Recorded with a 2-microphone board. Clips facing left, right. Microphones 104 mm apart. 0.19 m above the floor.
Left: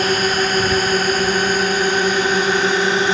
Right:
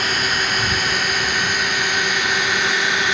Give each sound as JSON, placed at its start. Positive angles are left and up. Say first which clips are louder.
{"t": 0.0, "sound": "a drone", "louder": "left 5 dB", "side_deg": 40}